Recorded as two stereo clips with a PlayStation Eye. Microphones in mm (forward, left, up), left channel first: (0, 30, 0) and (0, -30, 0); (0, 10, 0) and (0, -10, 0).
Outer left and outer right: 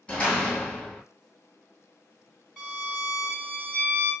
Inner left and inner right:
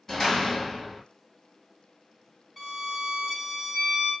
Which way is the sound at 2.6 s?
15° left (ahead or behind).